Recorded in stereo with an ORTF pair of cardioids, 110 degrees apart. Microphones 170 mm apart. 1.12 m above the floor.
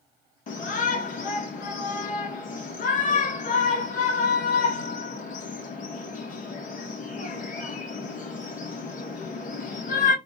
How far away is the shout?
About 1.5 m.